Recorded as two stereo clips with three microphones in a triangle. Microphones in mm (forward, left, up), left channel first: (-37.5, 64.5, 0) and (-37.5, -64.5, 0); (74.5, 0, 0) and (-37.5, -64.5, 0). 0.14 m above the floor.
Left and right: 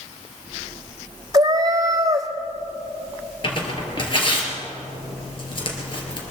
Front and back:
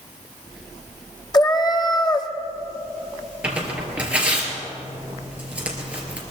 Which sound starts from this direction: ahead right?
A cat meowing, at 1.3 s.